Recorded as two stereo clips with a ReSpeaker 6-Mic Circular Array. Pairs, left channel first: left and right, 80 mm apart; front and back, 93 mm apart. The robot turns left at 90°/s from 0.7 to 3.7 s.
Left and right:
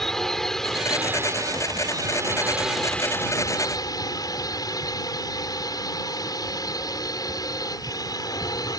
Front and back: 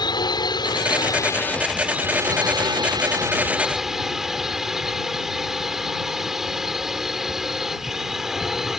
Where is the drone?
5° left; by 8.8 s 95° left.